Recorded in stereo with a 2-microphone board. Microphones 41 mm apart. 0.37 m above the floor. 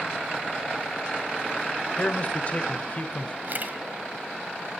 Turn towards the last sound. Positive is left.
turn(degrees=-45)  # may be behind; listen again after turning